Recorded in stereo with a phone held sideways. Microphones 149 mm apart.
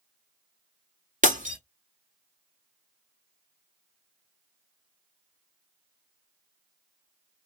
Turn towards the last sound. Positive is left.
turn(degrees=-60)  # may be behind; listen again after turning